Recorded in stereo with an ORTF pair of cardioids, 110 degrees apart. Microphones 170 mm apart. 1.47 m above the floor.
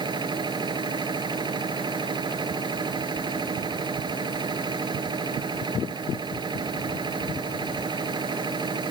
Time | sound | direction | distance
0.0 | a machine running | 30° right | ?